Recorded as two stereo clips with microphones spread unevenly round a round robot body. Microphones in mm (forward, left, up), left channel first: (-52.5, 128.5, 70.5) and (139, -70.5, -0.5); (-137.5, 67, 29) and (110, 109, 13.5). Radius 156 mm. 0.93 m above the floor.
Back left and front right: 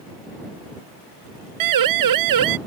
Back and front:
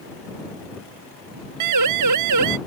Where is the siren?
30° right.